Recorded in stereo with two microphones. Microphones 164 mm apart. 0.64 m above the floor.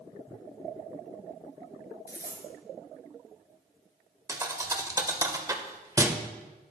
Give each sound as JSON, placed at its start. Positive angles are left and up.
{"t": 2.1, "sound": "a dropped coin", "side_deg": 70, "distance_m": 2.5}
{"t": 4.3, "sound": "a thud", "side_deg": -20, "distance_m": 0.6}